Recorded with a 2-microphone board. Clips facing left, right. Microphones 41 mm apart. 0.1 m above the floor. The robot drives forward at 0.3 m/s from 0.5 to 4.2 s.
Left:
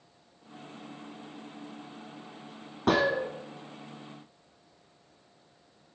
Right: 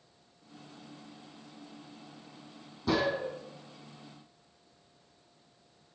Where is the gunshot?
65° left (ahead or behind), 2.5 m.